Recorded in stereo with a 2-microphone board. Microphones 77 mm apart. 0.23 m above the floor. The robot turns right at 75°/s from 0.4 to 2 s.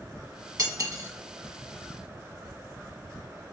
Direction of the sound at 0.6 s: 55° right (ahead or behind).